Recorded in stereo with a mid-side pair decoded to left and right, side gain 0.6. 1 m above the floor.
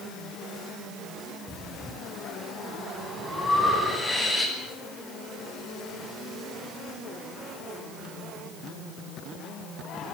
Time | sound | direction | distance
1.5 | breathing | 15° left | 9.5 m